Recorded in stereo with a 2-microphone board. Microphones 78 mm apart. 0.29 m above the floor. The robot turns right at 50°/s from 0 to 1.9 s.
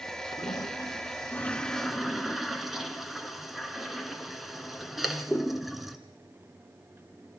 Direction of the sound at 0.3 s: 70° left (ahead or behind).